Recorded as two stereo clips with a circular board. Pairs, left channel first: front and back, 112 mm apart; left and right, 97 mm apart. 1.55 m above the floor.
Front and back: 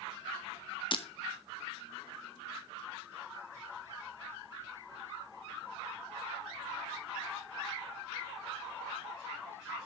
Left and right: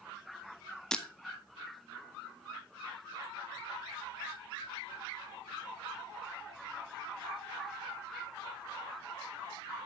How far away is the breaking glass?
About 1.1 m.